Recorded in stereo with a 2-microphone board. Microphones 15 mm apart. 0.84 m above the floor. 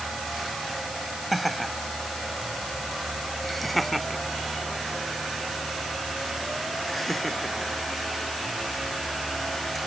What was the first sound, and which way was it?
Laughter, centre (ahead or behind).